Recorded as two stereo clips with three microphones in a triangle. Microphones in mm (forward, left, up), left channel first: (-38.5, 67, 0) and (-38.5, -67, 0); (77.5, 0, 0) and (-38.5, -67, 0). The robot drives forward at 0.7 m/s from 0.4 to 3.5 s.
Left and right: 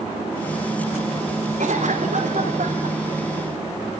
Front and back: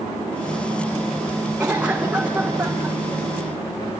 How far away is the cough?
About 7 m.